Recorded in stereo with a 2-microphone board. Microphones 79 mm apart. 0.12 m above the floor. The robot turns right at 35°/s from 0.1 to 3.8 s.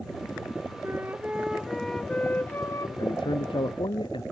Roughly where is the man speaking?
Left.